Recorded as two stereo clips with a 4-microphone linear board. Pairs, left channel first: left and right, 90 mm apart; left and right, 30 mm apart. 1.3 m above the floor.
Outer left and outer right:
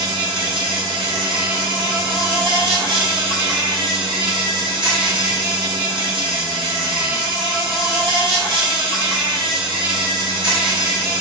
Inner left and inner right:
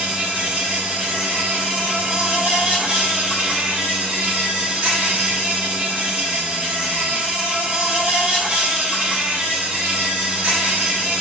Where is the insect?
60° right (ahead or behind), 2 m.